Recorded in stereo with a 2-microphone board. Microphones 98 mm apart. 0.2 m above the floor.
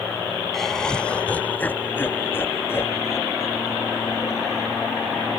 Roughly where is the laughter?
Centre.